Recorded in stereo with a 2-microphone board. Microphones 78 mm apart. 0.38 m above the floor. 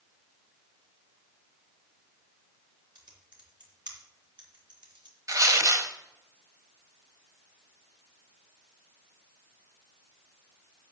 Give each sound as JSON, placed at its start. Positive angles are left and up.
{"t": 3.0, "sound": "typing on a keyboard", "side_deg": -70, "distance_m": 3.0}
{"t": 5.3, "sound": "tearing paper", "side_deg": -45, "distance_m": 1.1}